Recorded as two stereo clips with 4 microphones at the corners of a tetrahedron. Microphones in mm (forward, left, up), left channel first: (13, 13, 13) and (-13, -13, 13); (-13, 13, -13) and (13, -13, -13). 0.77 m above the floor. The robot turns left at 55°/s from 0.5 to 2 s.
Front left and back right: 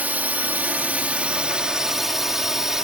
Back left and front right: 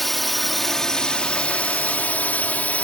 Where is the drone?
145° right; by 2.8 s 155° left.